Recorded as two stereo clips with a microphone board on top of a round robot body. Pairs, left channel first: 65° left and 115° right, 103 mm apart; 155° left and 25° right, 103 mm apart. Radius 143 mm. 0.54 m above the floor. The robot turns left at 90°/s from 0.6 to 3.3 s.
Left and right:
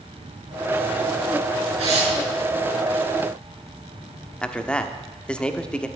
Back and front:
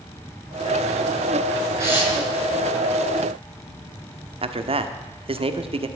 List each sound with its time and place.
1.8 s tearing paper: 80° right, 6.5 m; by 2.1 s 115° right, 6.5 m
4.4 s a man speaking: 10° right, 1.4 m